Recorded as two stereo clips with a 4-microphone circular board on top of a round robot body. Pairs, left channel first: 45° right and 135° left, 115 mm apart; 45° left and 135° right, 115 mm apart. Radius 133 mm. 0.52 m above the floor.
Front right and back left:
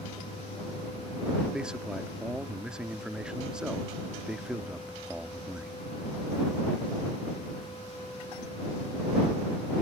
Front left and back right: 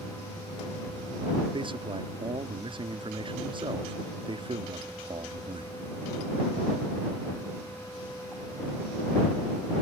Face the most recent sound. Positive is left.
turn(degrees=-145)